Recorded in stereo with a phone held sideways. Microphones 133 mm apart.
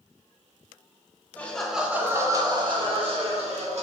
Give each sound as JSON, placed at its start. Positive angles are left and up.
{"t": 1.4, "sound": "laughter", "side_deg": 10, "distance_m": 0.9}